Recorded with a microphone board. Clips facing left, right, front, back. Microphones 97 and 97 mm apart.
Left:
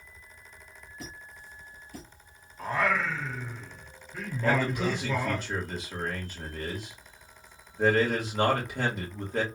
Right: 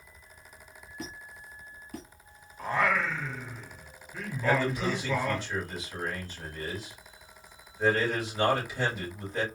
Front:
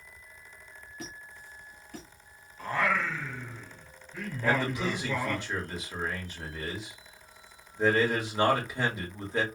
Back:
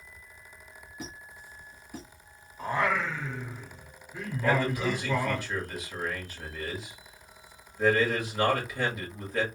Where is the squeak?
105° right, 1.3 m.